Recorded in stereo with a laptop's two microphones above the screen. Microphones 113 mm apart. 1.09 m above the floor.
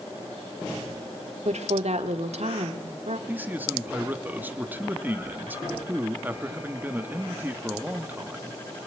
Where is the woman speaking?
80° right, 2.5 m.